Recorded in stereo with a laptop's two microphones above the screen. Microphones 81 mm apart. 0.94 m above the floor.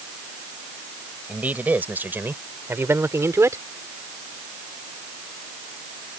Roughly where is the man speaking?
Centre.